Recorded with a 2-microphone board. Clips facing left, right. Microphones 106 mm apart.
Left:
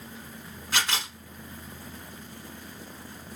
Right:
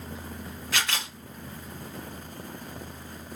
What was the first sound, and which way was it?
A camera shutter, 35° left (ahead or behind).